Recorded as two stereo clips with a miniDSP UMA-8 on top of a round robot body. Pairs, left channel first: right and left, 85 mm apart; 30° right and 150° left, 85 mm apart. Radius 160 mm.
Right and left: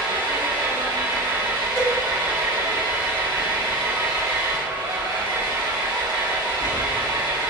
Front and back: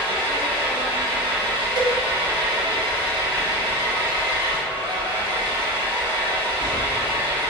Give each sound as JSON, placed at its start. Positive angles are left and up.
{"t": 0.0, "sound": "an engine running", "azimuth_deg": 125, "distance_m": 4.0}
{"t": 1.8, "sound": "a cowbell", "azimuth_deg": -170, "distance_m": 3.5}